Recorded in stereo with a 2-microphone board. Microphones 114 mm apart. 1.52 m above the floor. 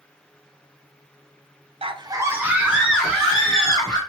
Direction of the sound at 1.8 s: 55° right (ahead or behind).